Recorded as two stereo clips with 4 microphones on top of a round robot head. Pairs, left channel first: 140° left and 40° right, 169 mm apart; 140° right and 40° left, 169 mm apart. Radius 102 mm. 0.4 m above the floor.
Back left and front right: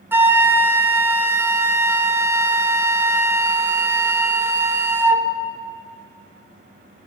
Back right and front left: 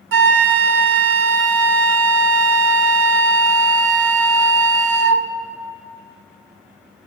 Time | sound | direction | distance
0.1 | a flute | 40° left | 0.5 m